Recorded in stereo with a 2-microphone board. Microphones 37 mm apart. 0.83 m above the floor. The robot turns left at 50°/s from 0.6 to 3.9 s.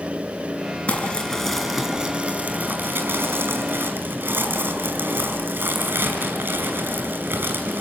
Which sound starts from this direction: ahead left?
Crumpling, at 0.9 s.